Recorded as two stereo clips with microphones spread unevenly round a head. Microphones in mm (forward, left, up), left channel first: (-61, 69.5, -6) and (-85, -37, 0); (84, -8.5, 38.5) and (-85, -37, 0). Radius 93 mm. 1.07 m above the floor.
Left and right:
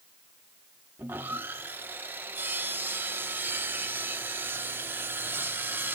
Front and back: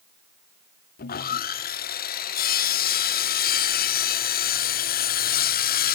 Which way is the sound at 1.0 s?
25° right.